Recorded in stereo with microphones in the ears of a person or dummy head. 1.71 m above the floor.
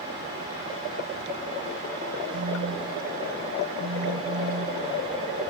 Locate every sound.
2.3 s a phone buzzing: 55° right (ahead or behind)